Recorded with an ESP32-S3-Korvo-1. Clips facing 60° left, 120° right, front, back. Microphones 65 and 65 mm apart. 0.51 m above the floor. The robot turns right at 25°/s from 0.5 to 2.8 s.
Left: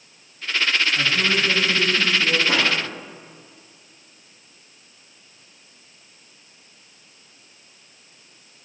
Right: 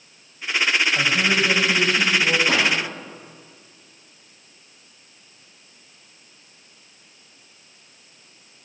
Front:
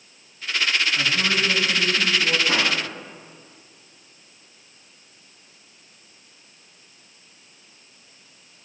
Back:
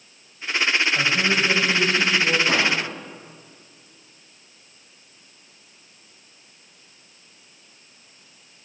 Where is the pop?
130° right, 5.5 m; by 2.7 s 125° right, 5.5 m.